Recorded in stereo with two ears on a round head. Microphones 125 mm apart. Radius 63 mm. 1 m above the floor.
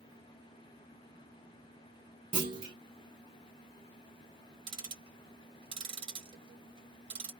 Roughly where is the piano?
I don't hear a piano.